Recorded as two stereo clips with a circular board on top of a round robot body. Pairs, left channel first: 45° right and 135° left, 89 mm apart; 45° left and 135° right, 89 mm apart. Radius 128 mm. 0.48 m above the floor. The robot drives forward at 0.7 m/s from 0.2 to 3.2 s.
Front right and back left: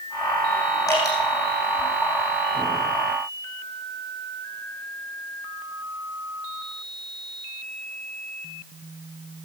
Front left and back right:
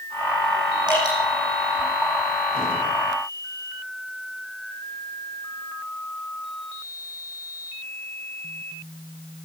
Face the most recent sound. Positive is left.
turn(degrees=-100)